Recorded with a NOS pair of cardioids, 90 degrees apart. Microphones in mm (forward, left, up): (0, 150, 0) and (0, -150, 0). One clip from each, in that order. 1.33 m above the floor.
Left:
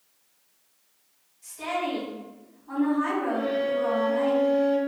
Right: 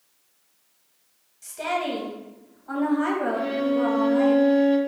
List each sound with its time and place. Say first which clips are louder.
1.4 s a woman speaking: right 3 dB; 50° right, 1.5 m
3.3 s a violin: right 1 dB; 15° right, 0.7 m